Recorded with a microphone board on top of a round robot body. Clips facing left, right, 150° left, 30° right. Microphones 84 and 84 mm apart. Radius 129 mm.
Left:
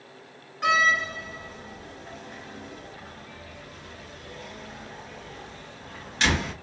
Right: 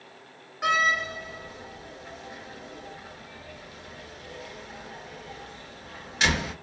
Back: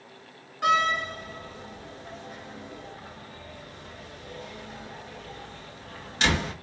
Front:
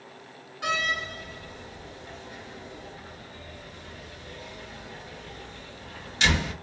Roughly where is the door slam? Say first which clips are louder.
Left 2 dB, back 6 dB; behind.